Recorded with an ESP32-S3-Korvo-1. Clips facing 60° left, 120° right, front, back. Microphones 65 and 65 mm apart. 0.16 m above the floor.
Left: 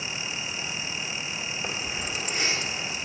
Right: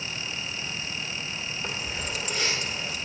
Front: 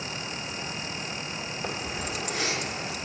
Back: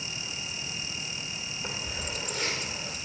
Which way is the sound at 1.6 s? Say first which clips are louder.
Even, front 3 dB; 5° right.